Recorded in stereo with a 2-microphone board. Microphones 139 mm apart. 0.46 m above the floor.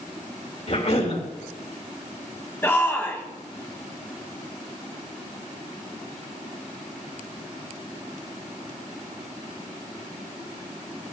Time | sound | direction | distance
0.7 | a cough | 55° left (ahead or behind) | 3 m
2.6 | a shout | 15° left (ahead or behind) | 3.5 m